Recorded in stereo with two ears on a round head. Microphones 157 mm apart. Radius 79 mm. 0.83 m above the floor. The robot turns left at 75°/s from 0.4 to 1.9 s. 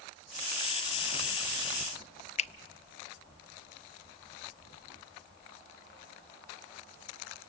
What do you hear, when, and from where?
2.4 s a finger snap: 40° left (ahead or behind), 0.6 m